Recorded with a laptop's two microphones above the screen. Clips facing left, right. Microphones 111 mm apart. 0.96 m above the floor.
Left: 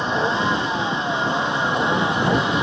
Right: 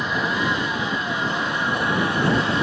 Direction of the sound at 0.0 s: 25° left (ahead or behind).